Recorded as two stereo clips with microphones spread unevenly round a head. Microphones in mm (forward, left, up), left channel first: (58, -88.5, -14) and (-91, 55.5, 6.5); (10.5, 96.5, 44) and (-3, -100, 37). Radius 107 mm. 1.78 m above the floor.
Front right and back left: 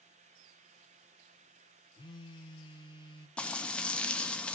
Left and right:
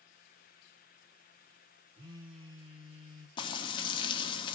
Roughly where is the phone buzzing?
Right.